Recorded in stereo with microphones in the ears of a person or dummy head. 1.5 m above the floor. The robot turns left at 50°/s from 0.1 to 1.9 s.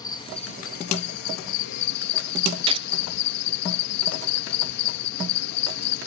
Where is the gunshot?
35° right (ahead or behind).